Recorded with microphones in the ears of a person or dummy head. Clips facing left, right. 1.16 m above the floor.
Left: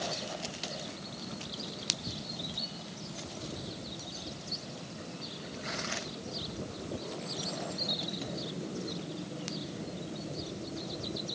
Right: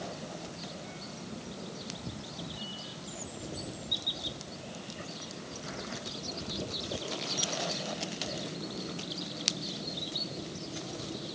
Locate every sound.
Only background noise.